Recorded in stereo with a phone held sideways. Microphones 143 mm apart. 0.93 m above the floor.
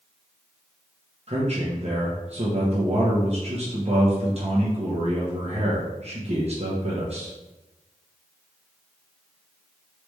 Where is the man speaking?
45° right (ahead or behind), 0.9 m.